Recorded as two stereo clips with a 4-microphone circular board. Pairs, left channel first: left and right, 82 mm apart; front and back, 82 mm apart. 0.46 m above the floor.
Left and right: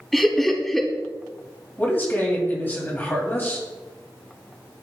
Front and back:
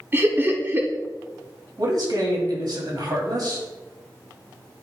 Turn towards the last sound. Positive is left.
turn(degrees=155)